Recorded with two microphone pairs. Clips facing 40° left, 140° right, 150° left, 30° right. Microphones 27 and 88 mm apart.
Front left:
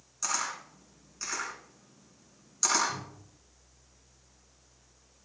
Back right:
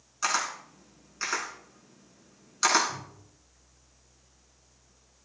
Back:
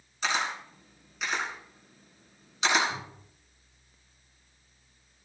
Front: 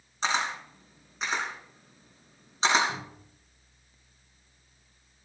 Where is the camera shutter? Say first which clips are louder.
Back right 5 dB, front 1 dB; 85° right, 3.5 m.